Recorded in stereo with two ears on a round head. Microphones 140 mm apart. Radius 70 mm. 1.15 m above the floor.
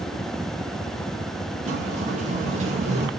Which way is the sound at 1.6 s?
45° right (ahead or behind).